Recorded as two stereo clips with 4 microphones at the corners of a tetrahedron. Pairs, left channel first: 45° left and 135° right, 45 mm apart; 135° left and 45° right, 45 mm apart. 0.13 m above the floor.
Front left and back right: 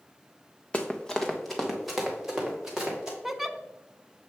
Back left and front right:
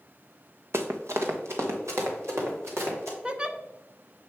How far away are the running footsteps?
About 1.1 m.